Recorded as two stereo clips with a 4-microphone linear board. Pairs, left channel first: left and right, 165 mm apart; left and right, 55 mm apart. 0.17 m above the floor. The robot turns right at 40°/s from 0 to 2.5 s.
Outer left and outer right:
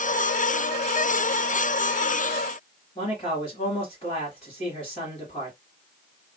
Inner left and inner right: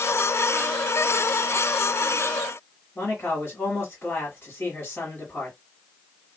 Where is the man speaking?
35° left (ahead or behind), 1.7 m.